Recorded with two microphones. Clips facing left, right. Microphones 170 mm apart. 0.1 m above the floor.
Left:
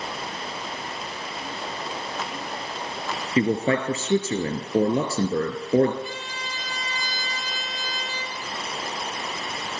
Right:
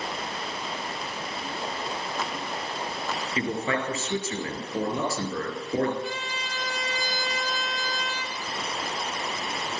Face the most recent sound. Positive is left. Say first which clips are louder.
# right 1 dB
turn(degrees=-65)  # may be behind; listen again after turning